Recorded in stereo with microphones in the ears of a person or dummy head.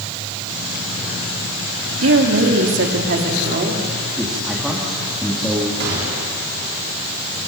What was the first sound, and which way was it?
A woman speaking, 80° right.